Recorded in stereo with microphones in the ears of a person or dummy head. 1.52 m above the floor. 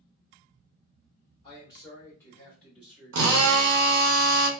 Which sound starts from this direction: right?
A drill, at 3.1 s.